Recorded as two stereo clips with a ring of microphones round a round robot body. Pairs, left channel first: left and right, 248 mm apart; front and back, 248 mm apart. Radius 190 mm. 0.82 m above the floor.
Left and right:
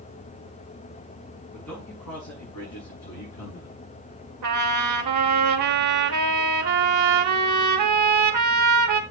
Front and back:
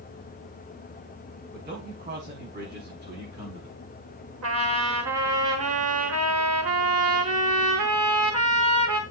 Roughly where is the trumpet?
Behind right.